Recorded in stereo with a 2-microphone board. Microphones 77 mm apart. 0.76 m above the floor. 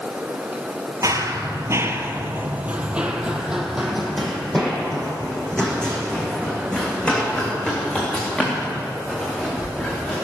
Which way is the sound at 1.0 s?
45° right (ahead or behind).